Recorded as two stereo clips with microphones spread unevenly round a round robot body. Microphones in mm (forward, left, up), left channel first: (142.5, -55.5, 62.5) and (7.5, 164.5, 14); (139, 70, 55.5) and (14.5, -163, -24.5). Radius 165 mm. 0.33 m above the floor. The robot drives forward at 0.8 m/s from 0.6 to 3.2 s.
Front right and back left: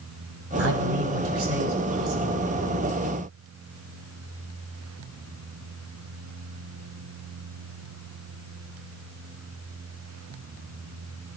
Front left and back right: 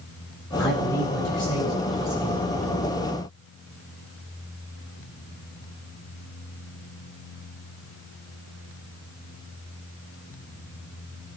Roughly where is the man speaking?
Behind left.